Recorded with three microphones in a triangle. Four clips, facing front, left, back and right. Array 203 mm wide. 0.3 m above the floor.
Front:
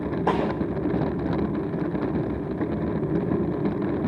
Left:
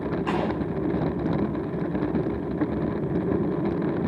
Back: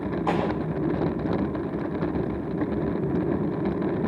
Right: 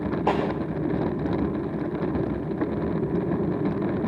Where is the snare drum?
50° right, 6.5 m.